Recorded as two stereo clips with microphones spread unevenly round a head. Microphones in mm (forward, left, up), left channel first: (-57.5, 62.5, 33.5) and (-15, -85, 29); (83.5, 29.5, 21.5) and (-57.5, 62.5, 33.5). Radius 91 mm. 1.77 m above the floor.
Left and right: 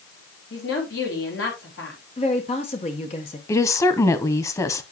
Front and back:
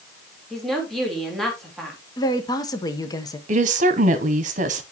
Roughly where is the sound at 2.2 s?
Ahead left.